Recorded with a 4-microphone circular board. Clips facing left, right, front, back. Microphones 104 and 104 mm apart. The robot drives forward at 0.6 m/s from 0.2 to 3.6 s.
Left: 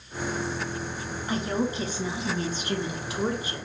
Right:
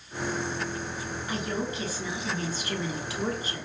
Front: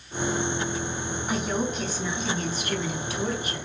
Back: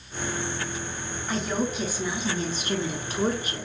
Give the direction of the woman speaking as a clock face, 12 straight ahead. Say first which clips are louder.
Left 5 dB, back 1 dB; 10 o'clock.